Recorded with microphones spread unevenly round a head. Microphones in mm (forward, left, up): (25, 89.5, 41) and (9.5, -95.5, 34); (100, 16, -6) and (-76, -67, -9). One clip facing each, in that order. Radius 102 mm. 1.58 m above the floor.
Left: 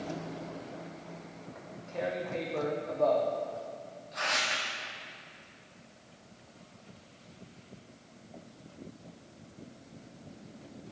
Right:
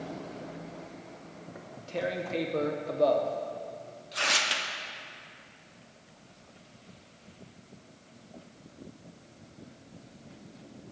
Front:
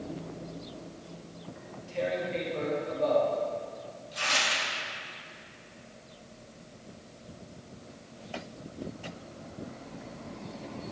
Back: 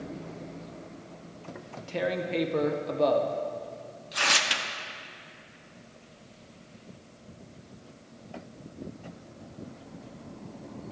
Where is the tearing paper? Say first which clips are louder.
Right 3 dB, back 1 dB; 150° right, 0.6 m.